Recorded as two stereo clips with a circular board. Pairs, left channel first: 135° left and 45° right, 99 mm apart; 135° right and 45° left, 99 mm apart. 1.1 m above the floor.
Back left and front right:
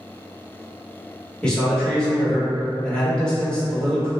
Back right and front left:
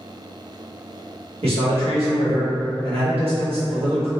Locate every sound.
1.4 s a man speaking: 55° left, 1.1 m